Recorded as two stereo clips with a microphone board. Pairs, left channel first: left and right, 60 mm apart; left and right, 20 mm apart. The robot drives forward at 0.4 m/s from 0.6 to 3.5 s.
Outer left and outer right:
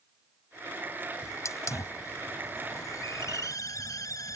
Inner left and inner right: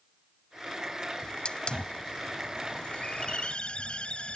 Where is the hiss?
50° left (ahead or behind); by 4.4 s 65° left (ahead or behind).